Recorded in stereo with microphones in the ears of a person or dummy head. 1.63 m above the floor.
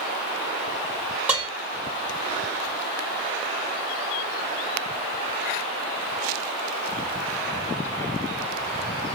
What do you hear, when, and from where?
1.3 s dishes clattering: 10° right (ahead or behind), 1.4 m